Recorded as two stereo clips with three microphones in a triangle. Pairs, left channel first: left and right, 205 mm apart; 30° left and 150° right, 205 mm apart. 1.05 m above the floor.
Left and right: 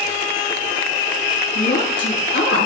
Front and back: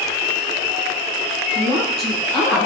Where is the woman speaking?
115° left, 6.5 m.